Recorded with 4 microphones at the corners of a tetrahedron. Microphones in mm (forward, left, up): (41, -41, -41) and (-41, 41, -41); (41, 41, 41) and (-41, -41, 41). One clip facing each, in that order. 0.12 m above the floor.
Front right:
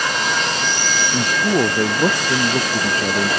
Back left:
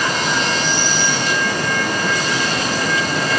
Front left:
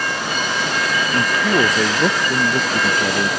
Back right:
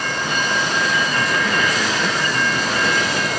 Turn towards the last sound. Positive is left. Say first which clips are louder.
# front right 3 dB, front left 3 dB
turn(degrees=0)